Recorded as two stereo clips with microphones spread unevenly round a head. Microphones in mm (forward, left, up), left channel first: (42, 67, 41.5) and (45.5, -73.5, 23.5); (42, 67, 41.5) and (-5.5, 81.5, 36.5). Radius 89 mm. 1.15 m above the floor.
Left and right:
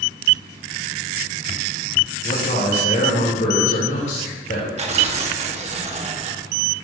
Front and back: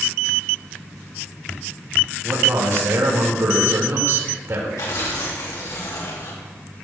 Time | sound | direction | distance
2.2 | a man speaking | 135° left | 5 m
4.8 | tearing paper | 50° right | 2.5 m